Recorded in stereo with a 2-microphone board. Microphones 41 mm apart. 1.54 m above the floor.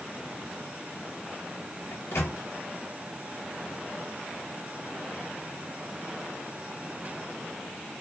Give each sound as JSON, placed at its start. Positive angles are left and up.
{"t": 1.9, "sound": "a microwave", "side_deg": 75, "distance_m": 1.9}